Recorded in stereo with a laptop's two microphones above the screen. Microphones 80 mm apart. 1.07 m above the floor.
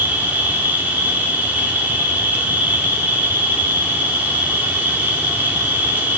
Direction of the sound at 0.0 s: 20° right (ahead or behind).